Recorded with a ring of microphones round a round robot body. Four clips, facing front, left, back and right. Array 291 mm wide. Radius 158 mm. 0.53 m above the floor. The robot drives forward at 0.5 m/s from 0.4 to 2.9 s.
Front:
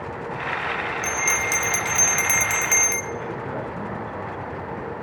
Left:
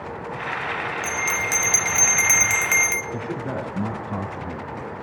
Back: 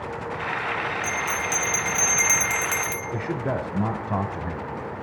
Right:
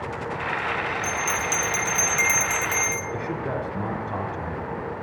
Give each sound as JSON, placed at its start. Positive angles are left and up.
{"t": 1.0, "sound": "a bell", "azimuth_deg": 35, "distance_m": 1.5}
{"t": 3.1, "sound": "a man speaking", "azimuth_deg": -170, "distance_m": 2.0}